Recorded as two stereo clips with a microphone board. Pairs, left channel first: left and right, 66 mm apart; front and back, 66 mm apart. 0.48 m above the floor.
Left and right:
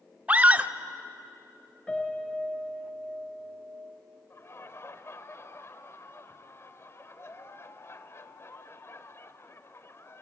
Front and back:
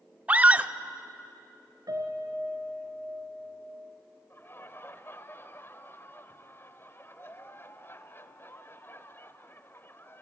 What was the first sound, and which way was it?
A scream, 135° right.